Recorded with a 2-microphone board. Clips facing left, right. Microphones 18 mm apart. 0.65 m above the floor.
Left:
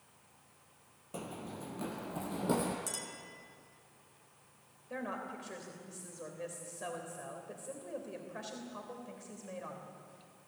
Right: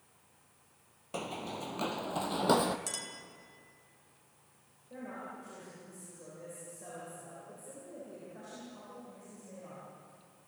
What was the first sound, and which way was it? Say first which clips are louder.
Running footsteps: right 5 dB; 40° right (ahead or behind).